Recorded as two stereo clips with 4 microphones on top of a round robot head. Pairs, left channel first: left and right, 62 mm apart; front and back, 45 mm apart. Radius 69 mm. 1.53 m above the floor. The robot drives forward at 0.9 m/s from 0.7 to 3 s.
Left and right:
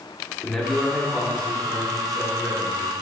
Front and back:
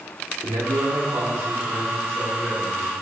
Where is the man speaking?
Straight behind, 0.8 m.